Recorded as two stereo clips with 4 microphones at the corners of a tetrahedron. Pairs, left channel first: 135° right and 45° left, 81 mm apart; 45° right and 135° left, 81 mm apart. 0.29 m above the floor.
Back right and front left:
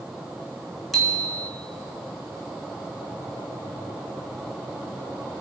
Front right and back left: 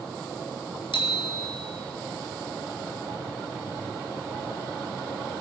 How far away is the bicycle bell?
About 3 m.